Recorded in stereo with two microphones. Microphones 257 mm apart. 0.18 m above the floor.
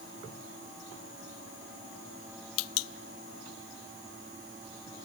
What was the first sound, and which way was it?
Only background noise.